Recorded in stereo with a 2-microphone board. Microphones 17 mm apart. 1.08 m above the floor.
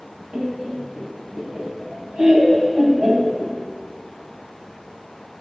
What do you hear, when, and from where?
0.3 s laughter: 75° right (ahead or behind), 1.4 m